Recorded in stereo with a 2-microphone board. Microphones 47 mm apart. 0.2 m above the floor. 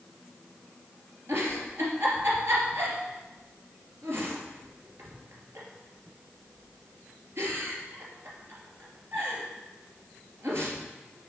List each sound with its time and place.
1.3 s a giggle: 65° right (ahead or behind), 3 m